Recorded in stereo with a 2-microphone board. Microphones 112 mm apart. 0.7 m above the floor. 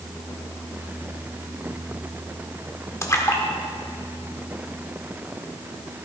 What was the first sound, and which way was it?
A splash, 25° left (ahead or behind).